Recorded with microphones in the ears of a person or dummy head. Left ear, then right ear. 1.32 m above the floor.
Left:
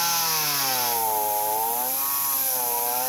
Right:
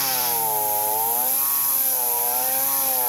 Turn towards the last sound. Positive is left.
No sound to turn to.